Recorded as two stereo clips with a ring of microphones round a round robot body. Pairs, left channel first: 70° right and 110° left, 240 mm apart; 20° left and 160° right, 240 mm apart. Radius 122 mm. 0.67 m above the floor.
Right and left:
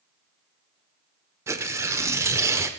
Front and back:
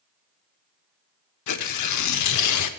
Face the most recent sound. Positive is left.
turn(degrees=35)